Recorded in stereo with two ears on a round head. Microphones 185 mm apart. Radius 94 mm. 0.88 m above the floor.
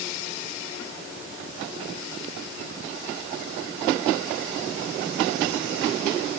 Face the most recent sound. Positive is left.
No sound to turn to.